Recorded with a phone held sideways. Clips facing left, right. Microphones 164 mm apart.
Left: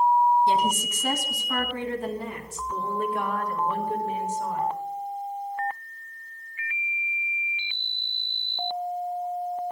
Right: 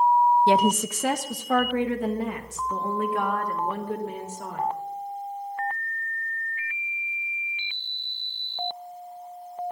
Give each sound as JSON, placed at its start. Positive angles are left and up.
{"t": 0.5, "sound": "a woman speaking", "side_deg": -75, "distance_m": 0.6}